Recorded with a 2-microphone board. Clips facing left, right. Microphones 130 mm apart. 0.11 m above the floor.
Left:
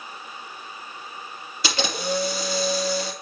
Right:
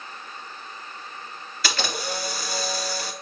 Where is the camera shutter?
20° left (ahead or behind), 1.7 m.